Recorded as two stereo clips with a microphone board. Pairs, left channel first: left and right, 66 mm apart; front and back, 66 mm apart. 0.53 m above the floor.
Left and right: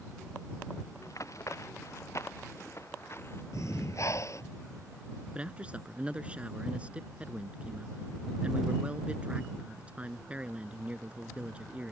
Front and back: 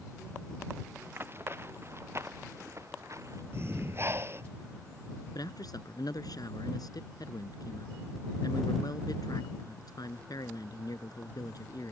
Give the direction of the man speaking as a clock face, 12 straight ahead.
1 o'clock.